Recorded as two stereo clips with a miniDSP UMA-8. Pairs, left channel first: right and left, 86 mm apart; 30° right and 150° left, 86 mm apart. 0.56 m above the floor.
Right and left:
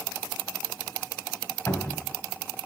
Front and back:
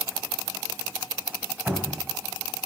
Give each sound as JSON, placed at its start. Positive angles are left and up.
{"t": 1.7, "sound": "a cupboard door", "azimuth_deg": -125, "distance_m": 2.5}